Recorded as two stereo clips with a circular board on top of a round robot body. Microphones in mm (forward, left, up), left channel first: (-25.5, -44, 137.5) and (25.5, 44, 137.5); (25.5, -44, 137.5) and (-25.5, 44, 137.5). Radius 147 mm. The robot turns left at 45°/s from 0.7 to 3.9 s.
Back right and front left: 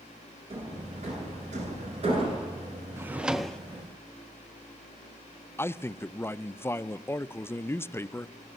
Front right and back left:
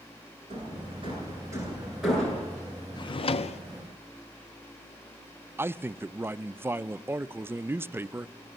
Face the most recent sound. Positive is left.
turn(degrees=180)